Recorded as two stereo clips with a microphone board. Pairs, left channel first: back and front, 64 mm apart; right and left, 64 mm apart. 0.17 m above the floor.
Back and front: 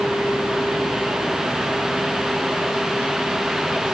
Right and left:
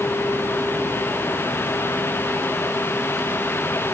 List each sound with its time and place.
Only background noise.